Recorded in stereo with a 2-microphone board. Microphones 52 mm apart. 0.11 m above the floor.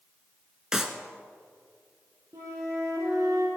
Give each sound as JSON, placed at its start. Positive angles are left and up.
{"t": 0.7, "sound": "a clap", "side_deg": -10, "distance_m": 1.2}
{"t": 2.3, "sound": "a flute", "side_deg": -75, "distance_m": 5.0}